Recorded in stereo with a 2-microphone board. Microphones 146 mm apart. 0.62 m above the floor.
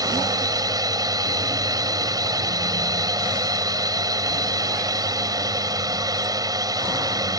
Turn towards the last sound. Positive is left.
turn(degrees=-25)  # may be behind; listen again after turning